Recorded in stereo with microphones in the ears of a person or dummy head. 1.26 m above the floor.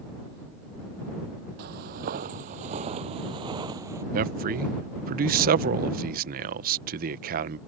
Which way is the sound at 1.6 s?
50° right (ahead or behind).